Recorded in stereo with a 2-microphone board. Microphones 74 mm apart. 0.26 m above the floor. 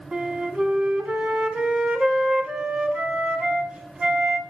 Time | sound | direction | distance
0.1 | a flute | 15° right (ahead or behind) | 0.7 m